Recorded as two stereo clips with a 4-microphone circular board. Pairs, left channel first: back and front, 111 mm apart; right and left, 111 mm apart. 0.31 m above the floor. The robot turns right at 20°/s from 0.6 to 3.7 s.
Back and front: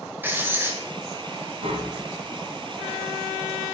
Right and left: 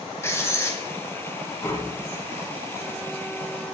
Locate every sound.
0.2 s writing: 50° right, 1.6 m; by 0.8 s 45° right, 1.6 m
1.6 s tapping: 25° right, 1.8 m; by 2.0 s 15° right, 1.8 m